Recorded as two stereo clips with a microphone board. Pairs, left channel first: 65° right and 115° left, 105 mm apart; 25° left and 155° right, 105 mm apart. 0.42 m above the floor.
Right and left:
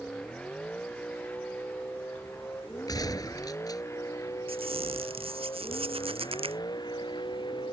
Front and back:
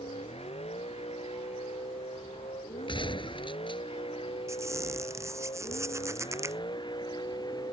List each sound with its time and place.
0.0 s a vehicle: 15° left; by 7.7 s 25° right
2.9 s a gunshot: 15° right
4.5 s a squeak: 140° left